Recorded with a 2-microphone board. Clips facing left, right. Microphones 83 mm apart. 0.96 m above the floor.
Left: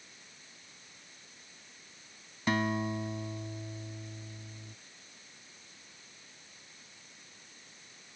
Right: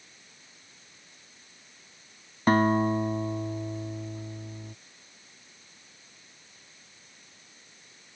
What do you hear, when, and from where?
2.5 s a guitar: 45° right (ahead or behind)